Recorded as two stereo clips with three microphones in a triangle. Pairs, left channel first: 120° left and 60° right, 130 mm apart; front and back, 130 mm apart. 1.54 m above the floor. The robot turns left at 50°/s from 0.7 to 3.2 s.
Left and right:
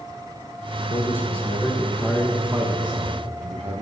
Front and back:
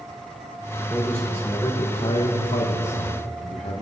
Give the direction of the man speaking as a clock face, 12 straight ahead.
9 o'clock.